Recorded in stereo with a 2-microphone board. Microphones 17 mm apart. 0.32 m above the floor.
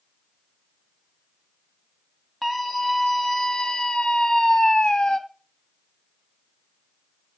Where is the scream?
5° left (ahead or behind), 2.0 m; by 5.2 s 55° left (ahead or behind), 2 m.